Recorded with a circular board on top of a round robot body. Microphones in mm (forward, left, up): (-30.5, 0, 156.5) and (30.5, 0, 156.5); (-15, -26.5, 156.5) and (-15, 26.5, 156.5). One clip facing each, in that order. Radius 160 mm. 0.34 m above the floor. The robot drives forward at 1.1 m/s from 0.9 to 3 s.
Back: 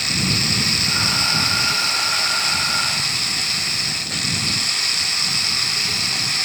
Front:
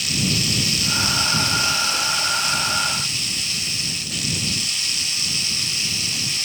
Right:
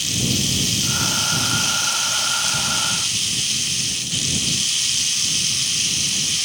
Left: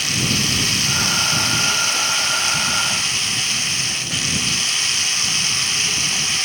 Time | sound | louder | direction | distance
0.0 | running water | back 1 dB, left 2 dB | 140° left | ?